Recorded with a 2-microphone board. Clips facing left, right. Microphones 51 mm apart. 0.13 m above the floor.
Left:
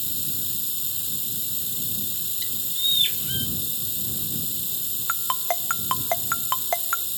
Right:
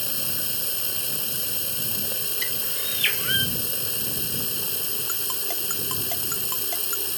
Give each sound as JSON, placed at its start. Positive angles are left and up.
{"t": 0.0, "sound": "running water", "side_deg": -65}
{"t": 2.4, "sound": "a bird", "side_deg": -60}
{"t": 5.1, "sound": "a ringtone", "side_deg": 45}